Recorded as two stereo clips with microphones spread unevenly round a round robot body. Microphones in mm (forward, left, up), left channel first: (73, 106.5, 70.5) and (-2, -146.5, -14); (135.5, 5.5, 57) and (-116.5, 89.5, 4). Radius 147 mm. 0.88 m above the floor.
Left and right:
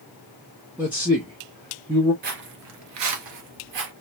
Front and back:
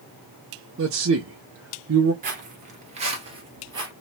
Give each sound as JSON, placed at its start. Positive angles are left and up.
{"t": 0.8, "sound": "a man speaking", "azimuth_deg": 180, "distance_m": 0.8}
{"t": 2.2, "sound": "footsteps", "azimuth_deg": -160, "distance_m": 0.8}